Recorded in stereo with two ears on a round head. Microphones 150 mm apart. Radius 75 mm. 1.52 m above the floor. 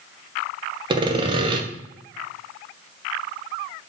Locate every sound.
0.9 s sawing: 30° right (ahead or behind), 0.6 m